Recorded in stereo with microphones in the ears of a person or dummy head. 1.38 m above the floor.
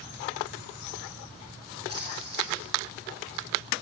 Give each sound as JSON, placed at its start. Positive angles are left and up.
{"t": 1.9, "sound": "a splash", "side_deg": -25, "distance_m": 5.0}